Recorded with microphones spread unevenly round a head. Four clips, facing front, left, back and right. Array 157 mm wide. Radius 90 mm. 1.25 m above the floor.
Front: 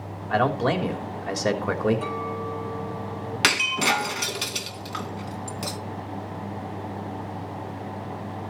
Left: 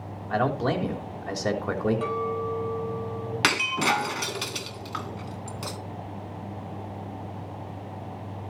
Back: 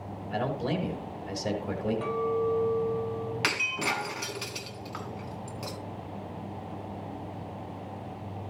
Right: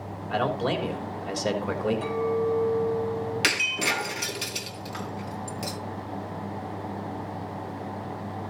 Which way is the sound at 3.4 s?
30° left.